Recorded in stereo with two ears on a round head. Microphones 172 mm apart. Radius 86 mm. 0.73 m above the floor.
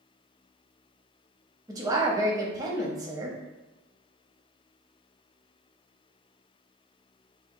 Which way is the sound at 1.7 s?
20° right (ahead or behind).